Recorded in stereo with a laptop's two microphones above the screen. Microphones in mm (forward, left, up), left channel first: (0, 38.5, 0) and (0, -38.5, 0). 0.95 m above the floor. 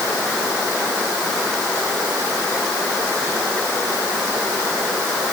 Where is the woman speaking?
No woman speaking in this recording.